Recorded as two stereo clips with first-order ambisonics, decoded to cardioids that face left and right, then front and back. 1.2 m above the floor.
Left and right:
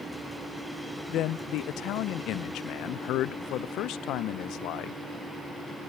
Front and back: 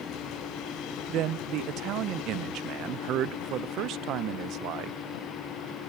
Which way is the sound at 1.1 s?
135° left.